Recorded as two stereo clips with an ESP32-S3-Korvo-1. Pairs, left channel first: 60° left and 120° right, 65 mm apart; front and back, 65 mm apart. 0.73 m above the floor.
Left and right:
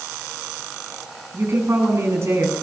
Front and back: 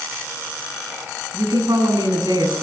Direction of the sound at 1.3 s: 170° right.